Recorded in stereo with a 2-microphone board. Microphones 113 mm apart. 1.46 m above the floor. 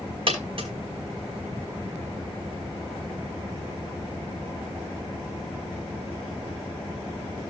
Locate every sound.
0.3 s a dropped coin: 55° right (ahead or behind), 5 m